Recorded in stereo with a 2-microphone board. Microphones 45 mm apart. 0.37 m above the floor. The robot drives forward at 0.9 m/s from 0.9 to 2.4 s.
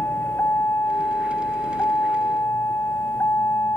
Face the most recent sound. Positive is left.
turn(degrees=75)  # may be behind; listen again after turning